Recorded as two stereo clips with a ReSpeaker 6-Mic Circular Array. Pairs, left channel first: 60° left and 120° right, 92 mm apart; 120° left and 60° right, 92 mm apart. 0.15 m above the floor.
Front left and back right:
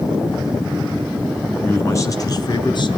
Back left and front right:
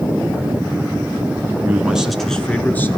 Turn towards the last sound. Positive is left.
turn(degrees=60)